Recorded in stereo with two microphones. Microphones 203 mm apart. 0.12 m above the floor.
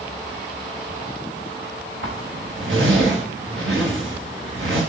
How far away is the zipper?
About 5.5 m.